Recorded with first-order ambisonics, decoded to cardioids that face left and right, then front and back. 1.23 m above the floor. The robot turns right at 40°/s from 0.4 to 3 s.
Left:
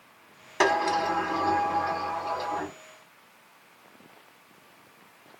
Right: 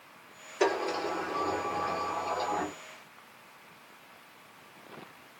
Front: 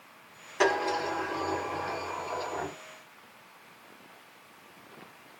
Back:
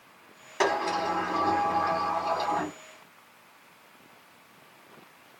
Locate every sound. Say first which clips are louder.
0.6 s a sliding door: left 6 dB, back 1 dB; 100° left, 1.6 m; by 2.8 s 175° right, 1.6 m